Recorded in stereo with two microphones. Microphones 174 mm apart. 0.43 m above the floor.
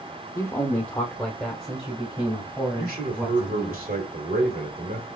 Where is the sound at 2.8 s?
55° right (ahead or behind), 1.3 m.